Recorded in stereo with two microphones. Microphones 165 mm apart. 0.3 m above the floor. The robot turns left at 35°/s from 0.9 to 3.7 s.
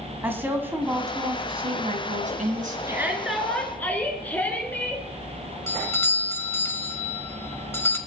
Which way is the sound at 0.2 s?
15° right.